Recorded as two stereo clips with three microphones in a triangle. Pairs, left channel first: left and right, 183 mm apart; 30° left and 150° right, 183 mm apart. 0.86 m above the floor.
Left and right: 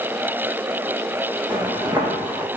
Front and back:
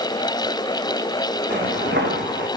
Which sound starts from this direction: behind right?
Footsteps, at 1.5 s.